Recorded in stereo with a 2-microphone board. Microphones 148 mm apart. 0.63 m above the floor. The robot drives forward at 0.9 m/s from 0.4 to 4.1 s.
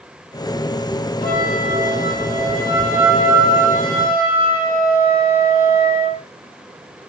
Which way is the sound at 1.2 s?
85° left.